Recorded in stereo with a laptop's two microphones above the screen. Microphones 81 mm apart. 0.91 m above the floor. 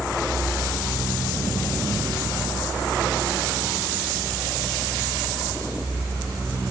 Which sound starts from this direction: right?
A fan, at 0.0 s.